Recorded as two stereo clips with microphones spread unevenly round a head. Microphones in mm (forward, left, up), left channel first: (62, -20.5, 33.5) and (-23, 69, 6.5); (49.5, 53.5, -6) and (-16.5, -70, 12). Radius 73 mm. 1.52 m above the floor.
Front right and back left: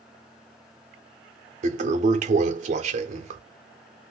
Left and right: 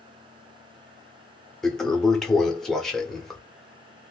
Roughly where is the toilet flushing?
Behind left.